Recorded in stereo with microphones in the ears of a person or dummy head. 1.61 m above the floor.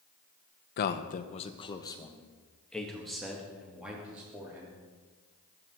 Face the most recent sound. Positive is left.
turn(degrees=-10)  # may be behind; listen again after turning